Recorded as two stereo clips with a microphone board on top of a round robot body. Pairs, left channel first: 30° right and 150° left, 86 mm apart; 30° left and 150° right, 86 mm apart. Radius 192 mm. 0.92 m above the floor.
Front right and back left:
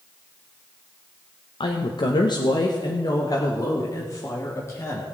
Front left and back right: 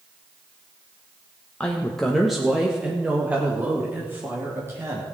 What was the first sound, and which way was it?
A woman speaking, 45° right.